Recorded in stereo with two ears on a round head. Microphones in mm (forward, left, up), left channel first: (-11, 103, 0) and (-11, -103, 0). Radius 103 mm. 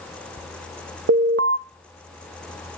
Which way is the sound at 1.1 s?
55° right (ahead or behind).